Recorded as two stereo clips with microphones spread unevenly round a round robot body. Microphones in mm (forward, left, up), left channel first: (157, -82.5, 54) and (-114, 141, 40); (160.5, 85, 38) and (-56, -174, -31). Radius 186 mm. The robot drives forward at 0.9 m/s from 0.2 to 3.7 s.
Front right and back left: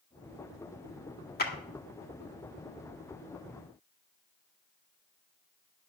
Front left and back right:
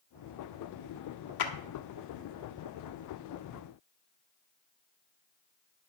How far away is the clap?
About 1.8 m.